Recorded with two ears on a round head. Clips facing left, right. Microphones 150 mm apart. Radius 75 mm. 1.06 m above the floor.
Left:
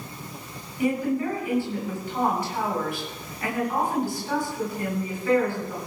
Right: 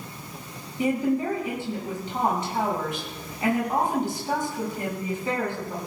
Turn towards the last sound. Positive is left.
turn(degrees=-20)  # may be behind; listen again after turning